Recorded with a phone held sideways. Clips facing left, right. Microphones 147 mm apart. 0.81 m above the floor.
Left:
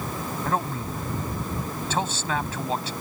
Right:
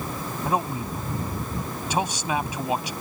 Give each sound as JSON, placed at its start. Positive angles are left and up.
{"t": 0.5, "sound": "a man speaking", "side_deg": -15}